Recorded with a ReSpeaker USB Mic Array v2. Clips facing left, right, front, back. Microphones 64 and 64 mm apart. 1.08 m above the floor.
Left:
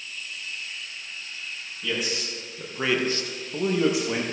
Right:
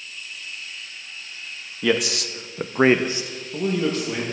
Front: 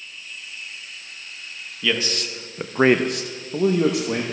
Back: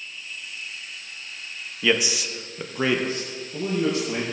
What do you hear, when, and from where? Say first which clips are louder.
1.8 s a man speaking: right 8 dB, back 2 dB; 110° right, 0.9 m; by 4.2 s 20° left, 1.2 m